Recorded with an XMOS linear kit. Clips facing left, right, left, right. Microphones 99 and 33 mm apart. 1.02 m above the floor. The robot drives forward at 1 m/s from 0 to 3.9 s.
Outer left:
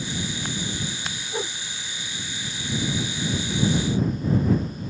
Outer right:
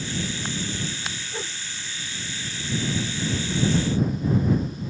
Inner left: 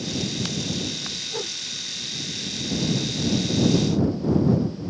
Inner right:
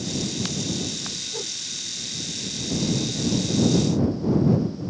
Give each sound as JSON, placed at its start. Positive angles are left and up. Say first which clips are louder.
{"t": 1.3, "sound": "a whoosh", "louder": "outer left 4 dB, inner left 2 dB", "side_deg": 20}